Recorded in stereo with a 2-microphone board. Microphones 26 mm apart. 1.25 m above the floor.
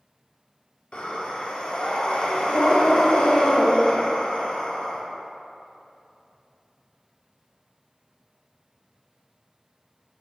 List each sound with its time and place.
0.9 s breathing: 45° left (ahead or behind), 1.0 m